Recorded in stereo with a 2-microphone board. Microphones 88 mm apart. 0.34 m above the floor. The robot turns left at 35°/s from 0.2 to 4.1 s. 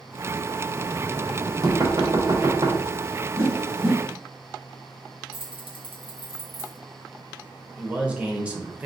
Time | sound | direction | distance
0.7 | knocking | 25° right | 1.0 m
3.4 | a whoosh | 35° right (ahead or behind) | 1.4 m
5.3 | keys jangling | 20° right (ahead or behind) | 2.0 m
7.8 | a man speaking | 15° right (ahead or behind) | 0.9 m